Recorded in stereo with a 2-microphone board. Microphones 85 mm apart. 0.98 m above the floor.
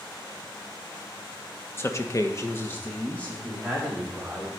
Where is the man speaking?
30° left (ahead or behind), 1.0 m; by 4.5 s 10° left (ahead or behind), 4 m.